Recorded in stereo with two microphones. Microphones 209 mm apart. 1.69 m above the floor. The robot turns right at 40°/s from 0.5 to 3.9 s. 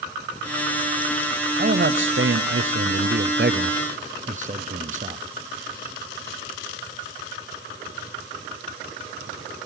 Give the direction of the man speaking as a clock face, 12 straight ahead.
4 o'clock.